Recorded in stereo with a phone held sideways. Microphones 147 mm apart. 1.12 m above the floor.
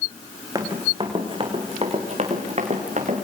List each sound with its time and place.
0.6 s running footsteps: 25° right (ahead or behind), 4.5 m; by 3.2 s 55° right (ahead or behind), 6.5 m